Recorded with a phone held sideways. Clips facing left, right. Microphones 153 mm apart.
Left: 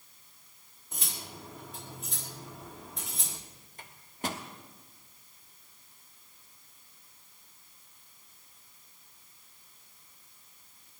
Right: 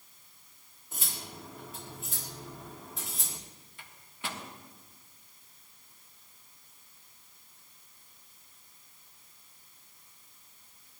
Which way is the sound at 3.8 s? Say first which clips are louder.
Left 6 dB; 40° left (ahead or behind).